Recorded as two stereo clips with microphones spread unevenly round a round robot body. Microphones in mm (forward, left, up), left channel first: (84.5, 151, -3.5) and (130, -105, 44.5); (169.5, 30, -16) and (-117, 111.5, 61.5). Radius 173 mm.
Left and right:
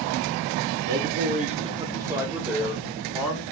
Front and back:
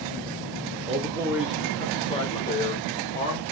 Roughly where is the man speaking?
Behind right.